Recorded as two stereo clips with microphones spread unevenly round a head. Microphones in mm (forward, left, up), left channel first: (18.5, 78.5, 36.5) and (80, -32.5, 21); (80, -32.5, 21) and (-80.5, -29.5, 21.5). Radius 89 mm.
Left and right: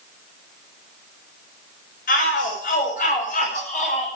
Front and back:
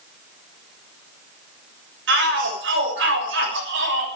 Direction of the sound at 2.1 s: 160° left.